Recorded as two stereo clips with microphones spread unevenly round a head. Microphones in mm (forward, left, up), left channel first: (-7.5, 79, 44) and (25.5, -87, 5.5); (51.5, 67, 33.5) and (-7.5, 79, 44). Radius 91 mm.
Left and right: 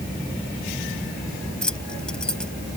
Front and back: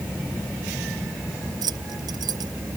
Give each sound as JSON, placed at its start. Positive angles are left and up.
{"t": 1.6, "sound": "keys jangling", "azimuth_deg": -175}